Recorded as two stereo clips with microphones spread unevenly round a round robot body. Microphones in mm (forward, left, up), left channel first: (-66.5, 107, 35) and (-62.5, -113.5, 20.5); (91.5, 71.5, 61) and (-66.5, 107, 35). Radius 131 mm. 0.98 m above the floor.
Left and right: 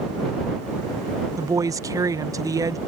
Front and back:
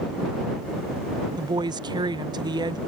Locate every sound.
1.4 s a woman speaking: 155° right